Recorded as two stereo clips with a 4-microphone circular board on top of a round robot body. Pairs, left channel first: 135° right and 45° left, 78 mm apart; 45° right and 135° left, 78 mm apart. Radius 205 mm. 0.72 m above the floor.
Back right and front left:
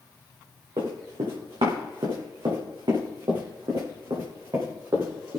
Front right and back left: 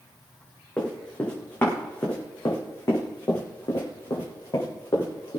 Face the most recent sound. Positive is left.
turn(degrees=-10)